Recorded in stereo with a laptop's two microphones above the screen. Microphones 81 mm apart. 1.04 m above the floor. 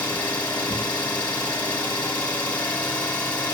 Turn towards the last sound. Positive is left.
turn(degrees=15)  # may be behind; listen again after turning